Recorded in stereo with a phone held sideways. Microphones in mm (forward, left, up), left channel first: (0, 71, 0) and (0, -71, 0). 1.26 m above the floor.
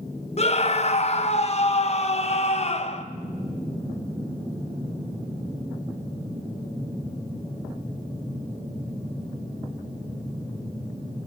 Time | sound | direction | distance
0.4 | a scream | 45° left (ahead or behind) | 1.2 m